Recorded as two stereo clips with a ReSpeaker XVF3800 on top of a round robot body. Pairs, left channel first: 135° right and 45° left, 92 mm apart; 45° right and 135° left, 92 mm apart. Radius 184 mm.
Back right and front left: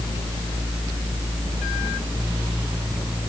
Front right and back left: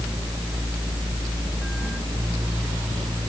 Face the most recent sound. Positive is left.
No sound to turn to.